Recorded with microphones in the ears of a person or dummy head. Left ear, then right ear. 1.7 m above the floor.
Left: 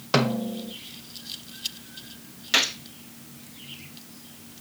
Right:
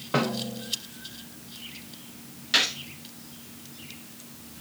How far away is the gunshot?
About 1.0 m.